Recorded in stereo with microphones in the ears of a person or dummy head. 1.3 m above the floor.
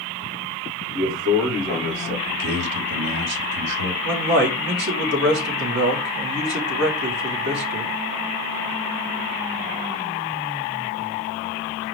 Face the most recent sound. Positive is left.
turn(degrees=-60)  # may be behind; listen again after turning